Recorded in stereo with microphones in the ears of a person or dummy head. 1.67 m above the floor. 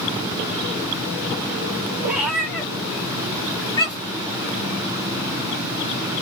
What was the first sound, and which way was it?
A cat meowing, 10° right (ahead or behind).